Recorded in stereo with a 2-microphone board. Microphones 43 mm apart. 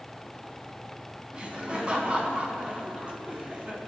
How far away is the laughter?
About 4.5 m.